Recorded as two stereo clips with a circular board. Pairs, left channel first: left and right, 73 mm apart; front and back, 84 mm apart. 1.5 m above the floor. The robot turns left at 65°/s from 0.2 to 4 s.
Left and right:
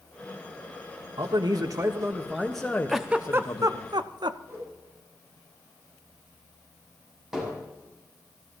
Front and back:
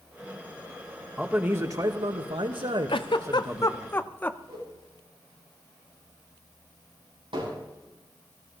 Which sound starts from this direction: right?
A man speaking, at 1.2 s.